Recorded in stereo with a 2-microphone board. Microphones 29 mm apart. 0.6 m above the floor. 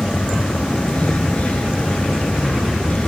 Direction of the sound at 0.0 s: 50° left (ahead or behind).